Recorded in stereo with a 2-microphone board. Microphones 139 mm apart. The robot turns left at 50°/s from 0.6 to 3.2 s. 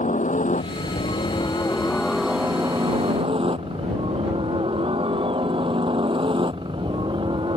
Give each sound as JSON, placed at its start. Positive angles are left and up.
{"t": 0.0, "sound": "a helicopter", "side_deg": 65}